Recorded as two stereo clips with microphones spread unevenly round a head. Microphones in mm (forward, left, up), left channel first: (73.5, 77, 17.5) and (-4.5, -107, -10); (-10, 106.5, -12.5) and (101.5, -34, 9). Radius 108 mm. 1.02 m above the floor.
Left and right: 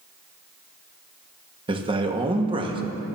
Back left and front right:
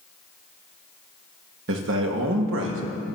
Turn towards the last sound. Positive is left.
turn(degrees=-55)